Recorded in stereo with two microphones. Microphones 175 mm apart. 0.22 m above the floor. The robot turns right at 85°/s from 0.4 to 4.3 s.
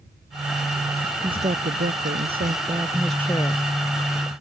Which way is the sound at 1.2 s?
155° right.